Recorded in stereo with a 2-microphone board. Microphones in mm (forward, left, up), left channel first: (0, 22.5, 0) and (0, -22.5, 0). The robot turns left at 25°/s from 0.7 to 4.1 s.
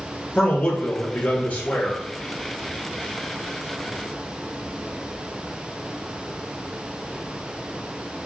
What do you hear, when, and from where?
0.3 s a man speaking: 150° left, 1.9 m; by 2.0 s 120° left, 1.9 m